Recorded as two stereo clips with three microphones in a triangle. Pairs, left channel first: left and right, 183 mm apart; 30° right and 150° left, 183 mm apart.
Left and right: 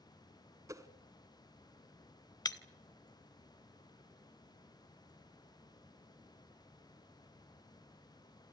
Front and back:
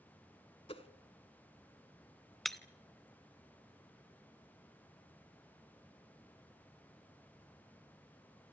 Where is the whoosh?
35° right, 1.0 m.